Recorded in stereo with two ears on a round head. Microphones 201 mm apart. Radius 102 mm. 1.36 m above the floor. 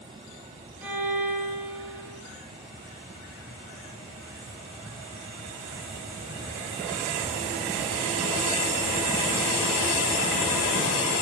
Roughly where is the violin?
Centre.